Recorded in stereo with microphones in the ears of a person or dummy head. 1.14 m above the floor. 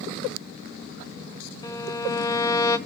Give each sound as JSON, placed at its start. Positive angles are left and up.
{"t": 1.6, "sound": "a violin", "side_deg": 15, "distance_m": 0.6}